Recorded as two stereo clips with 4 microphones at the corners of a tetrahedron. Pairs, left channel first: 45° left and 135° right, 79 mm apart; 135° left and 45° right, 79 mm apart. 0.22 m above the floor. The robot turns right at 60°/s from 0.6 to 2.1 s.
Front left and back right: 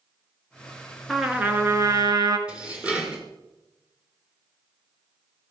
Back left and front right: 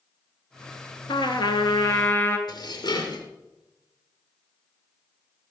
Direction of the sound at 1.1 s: 135° left.